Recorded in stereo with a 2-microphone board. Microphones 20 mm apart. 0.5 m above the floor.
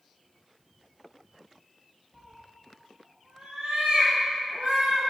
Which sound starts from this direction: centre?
A cat meowing, at 2.1 s.